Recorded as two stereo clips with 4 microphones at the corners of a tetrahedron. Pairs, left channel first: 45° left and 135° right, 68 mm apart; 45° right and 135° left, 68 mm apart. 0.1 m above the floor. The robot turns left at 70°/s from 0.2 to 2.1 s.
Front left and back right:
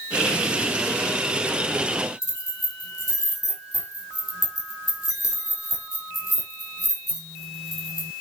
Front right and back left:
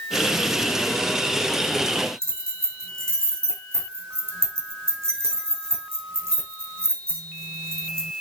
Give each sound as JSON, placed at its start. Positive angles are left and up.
{"t": 2.2, "sound": "keys jangling", "azimuth_deg": 85, "distance_m": 3.0}